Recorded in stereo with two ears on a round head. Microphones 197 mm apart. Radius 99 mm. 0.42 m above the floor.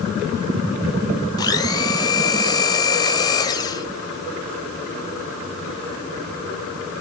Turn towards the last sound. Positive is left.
turn(degrees=20)  # may be behind; listen again after turning